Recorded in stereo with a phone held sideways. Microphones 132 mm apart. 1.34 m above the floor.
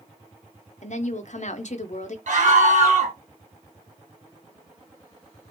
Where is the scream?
70° right (ahead or behind), 1.4 m.